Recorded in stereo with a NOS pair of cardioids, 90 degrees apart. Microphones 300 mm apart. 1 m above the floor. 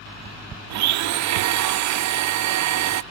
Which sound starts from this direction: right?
A blender, at 0.7 s.